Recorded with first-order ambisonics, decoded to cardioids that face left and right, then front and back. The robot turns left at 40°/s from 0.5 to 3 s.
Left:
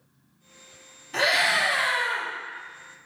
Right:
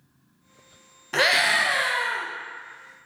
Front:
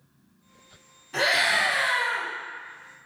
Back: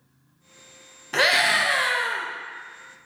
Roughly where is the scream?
Behind right.